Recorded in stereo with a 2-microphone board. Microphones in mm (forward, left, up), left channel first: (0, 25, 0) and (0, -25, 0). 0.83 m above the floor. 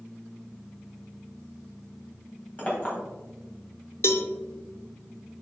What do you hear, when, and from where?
2.6 s a clink: 30° left (ahead or behind), 2.5 m
4.0 s a cowbell: 55° left (ahead or behind), 0.7 m